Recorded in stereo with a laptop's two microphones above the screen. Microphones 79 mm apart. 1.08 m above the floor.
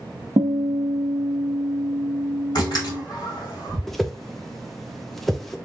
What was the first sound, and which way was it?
A guitar, 85° right.